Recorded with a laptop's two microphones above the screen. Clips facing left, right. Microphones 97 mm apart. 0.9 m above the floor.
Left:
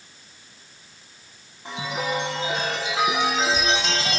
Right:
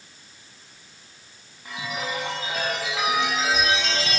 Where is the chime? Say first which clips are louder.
Left 3 dB; 30° left (ahead or behind), 6 m.